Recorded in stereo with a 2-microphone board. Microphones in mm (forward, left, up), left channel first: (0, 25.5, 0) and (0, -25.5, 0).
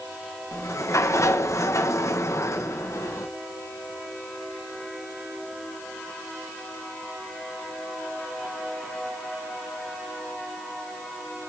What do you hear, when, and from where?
0.5 s a sliding door: 65° left (ahead or behind), 1.2 m